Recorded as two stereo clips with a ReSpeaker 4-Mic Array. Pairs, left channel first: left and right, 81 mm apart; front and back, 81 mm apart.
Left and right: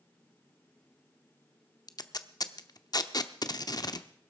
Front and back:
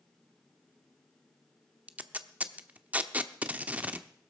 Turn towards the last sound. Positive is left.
turn(degrees=110)